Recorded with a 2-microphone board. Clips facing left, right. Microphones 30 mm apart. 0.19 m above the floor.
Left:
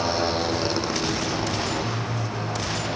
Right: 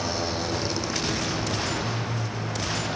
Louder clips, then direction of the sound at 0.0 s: Left 5 dB; 25° left (ahead or behind).